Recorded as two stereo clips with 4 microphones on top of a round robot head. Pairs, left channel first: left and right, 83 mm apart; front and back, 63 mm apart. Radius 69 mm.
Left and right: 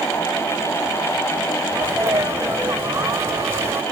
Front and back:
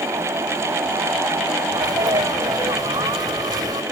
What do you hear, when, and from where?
1.7 s a sneeze: 155° right